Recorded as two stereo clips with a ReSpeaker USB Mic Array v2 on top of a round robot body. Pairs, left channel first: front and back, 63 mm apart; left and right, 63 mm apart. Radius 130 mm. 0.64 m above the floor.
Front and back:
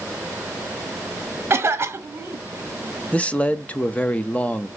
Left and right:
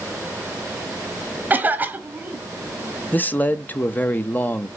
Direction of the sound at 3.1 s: 55° left.